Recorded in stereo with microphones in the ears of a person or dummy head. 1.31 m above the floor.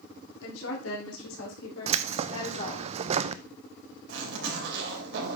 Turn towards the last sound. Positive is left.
turn(degrees=-70)  # may be behind; listen again after turning